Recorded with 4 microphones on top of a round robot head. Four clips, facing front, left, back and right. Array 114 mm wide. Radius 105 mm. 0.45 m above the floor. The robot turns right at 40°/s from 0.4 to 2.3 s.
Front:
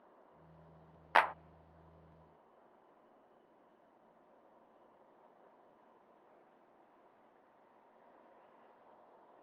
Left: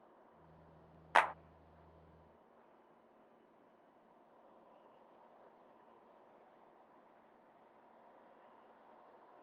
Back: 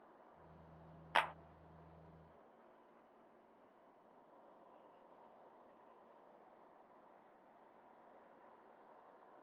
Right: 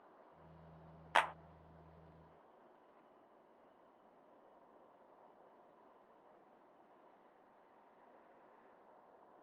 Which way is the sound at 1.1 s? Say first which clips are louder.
Left 3 dB, front 7 dB; 25° left.